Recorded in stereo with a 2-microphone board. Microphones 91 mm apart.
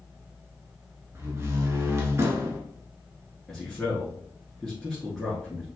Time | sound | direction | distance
1.1 | a door slam | 30° right (ahead or behind) | 1.2 m
3.5 | a man speaking | centre (ahead or behind) | 1.5 m